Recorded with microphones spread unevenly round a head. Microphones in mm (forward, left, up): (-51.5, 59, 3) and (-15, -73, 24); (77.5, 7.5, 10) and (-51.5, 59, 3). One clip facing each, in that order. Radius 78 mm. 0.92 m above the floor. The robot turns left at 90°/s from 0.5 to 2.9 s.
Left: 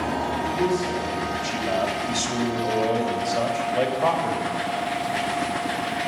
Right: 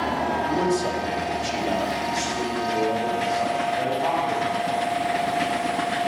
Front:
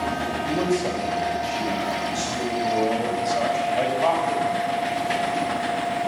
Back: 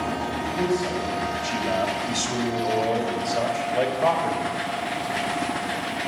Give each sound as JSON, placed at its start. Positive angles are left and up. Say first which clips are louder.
{"t": 0.4, "sound": "a man speaking", "louder": "even, front 2 dB", "azimuth_deg": -45, "distance_m": 4.0}